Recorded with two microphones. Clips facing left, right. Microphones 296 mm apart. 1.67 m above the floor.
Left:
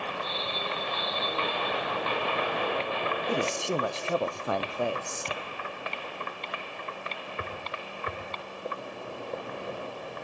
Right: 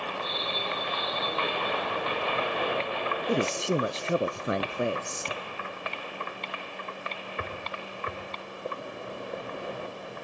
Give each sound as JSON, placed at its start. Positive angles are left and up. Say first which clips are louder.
{"t": 3.3, "sound": "a man speaking", "louder": "right 4 dB", "side_deg": -20, "distance_m": 0.6}